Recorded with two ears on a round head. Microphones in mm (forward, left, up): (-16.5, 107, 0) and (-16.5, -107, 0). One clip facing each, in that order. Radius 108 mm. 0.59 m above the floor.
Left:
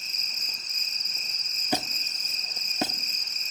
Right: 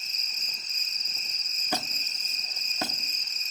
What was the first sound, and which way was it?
An insect, 45° left (ahead or behind).